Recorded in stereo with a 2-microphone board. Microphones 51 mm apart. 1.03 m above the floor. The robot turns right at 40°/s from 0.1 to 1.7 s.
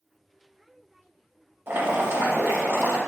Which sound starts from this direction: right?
Boiling, at 1.7 s.